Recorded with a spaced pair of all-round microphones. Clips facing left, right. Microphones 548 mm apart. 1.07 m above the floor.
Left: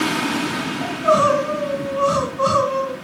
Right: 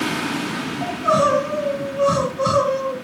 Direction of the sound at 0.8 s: 40° right (ahead or behind).